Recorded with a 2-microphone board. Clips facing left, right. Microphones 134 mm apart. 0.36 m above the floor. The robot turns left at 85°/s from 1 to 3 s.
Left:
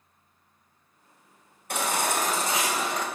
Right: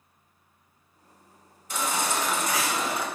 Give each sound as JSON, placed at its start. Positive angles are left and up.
{"t": 1.7, "sound": "a baby crying", "azimuth_deg": 100, "distance_m": 1.4}